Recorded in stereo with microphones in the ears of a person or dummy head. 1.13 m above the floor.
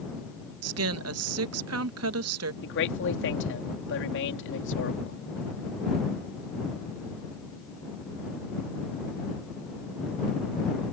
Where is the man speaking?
60° left (ahead or behind).